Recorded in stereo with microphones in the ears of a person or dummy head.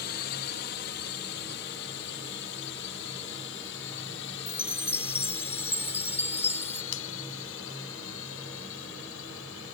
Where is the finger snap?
65° left (ahead or behind).